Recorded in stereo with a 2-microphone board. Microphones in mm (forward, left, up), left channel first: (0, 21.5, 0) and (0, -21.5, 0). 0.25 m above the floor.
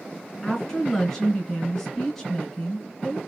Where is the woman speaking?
15° left (ahead or behind), 2.5 m.